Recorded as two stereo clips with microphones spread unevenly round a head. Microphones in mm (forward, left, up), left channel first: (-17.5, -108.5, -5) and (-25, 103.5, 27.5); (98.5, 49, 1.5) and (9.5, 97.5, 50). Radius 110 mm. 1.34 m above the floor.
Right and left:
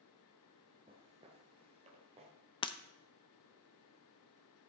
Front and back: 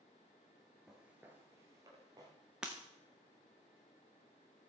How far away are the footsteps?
About 1.6 m.